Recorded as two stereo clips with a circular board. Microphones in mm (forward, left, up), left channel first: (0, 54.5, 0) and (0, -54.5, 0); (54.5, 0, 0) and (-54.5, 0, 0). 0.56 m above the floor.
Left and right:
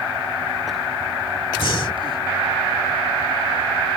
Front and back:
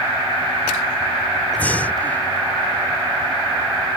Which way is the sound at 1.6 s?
70° left.